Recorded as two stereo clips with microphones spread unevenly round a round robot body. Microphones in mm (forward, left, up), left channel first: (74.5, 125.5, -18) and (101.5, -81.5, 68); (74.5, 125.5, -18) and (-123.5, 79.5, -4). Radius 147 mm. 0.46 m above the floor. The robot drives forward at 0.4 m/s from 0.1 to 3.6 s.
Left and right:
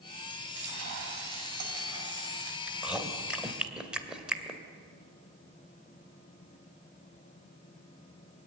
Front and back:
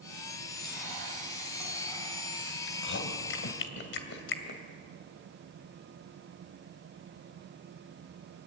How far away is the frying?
About 5 m.